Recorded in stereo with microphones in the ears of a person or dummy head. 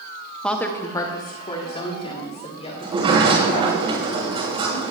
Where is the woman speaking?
5° left (ahead or behind), 1.2 m; by 3.8 s 40° left (ahead or behind), 5 m.